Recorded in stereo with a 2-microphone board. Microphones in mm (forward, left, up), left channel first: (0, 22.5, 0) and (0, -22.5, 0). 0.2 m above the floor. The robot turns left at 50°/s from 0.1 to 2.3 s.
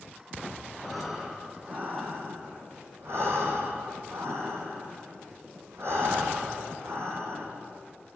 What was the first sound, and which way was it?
Breathing, 5° left.